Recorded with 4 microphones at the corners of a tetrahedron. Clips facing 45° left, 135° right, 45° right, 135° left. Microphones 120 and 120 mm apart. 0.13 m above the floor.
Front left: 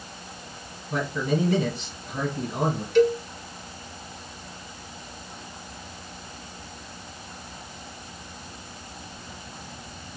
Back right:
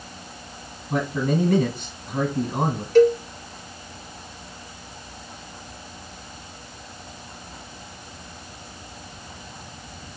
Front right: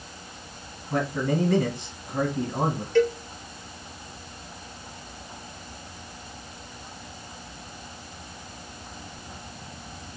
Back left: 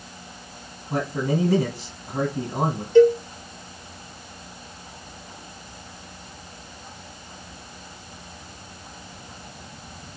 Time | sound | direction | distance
0.9 | a man speaking | 160° right | 1.6 m
3.0 | a cowbell | 160° right | 0.6 m